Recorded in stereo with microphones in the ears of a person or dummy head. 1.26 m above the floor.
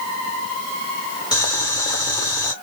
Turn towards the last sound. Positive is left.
turn(degrees=30)  # may be behind; listen again after turning